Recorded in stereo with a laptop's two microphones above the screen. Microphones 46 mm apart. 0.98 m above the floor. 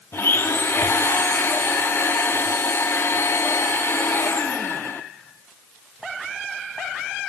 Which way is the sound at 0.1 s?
60° left (ahead or behind).